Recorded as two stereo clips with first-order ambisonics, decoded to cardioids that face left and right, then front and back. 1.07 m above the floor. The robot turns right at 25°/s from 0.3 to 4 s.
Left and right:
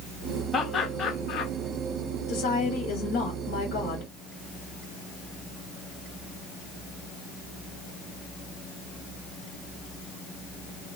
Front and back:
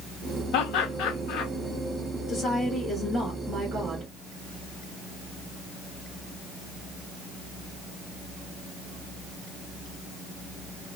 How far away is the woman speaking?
About 1.5 m.